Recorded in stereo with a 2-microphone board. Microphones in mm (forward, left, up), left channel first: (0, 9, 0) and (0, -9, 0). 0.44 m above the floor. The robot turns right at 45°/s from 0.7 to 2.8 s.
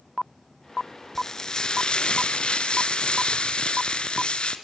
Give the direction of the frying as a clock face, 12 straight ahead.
11 o'clock.